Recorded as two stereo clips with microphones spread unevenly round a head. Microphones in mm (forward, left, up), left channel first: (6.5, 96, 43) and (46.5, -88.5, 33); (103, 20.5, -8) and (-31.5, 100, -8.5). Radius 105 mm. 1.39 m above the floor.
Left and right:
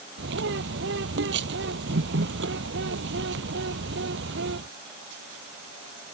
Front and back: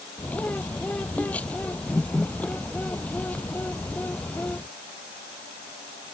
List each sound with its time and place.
0.2 s a bird: 115° right